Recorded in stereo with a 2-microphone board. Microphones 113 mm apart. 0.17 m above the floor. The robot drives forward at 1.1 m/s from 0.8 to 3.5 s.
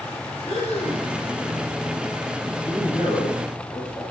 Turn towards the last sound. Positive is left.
turn(degrees=40)  # may be behind; listen again after turning